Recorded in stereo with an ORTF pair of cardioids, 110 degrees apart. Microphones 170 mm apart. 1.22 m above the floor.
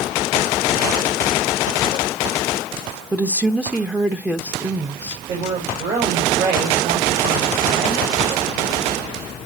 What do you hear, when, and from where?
3.1 s a woman speaking: 5° right, 1.1 m
5.3 s a woman speaking: 70° right, 6.5 m